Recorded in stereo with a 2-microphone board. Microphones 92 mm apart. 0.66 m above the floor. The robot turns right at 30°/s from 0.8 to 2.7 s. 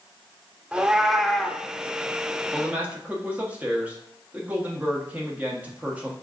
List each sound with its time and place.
0.7 s a cat meowing: 15° right (ahead or behind), 0.6 m; by 1.6 s 10° left (ahead or behind), 0.6 m
2.5 s a man speaking: 20° right (ahead or behind), 1.1 m; by 6.1 s 15° right (ahead or behind), 1.1 m